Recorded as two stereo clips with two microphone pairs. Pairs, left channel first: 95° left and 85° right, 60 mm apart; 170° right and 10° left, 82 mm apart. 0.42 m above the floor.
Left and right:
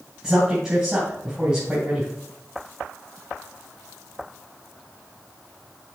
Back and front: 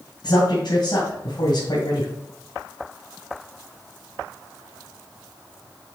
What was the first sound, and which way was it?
A man speaking, 165° right.